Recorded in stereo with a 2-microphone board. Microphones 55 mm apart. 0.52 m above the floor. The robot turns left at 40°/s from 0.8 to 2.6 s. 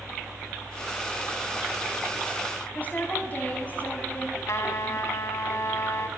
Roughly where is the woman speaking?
Left.